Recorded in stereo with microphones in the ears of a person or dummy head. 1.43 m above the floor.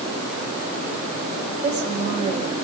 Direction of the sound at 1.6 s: 35° right (ahead or behind).